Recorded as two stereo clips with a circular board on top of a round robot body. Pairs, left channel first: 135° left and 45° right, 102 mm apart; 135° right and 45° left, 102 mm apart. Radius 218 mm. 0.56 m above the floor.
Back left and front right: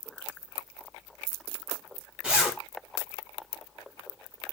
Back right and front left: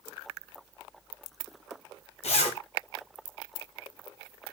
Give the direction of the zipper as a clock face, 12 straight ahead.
4 o'clock.